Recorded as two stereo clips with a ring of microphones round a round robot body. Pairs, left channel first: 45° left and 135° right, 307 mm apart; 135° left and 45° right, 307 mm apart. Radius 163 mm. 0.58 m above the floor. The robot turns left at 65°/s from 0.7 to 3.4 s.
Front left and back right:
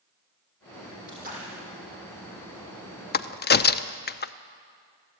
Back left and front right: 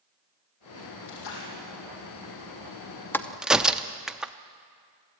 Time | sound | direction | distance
1.1 | a splash | 170° left | 4.5 m
3.1 | a crack | 60° left | 0.6 m